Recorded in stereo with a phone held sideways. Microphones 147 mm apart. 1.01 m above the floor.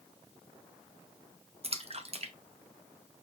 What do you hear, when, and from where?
1.6 s a splash: 45° right (ahead or behind), 1.0 m